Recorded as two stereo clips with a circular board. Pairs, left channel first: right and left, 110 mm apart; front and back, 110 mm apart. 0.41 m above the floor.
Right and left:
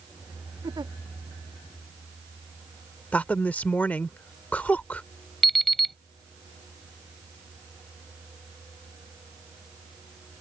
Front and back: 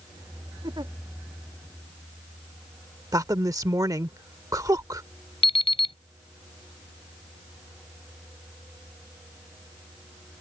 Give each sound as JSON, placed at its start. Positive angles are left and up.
{"t": 0.6, "sound": "a giggle", "azimuth_deg": 135}
{"t": 3.1, "sound": "a woman speaking", "azimuth_deg": -155}
{"t": 5.4, "sound": "an alarm clock", "azimuth_deg": 0}